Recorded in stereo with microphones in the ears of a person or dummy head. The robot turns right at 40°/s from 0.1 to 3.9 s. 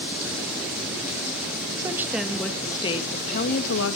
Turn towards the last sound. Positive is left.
turn(degrees=65)